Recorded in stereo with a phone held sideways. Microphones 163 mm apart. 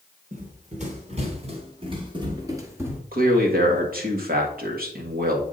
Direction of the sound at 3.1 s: 65° right (ahead or behind).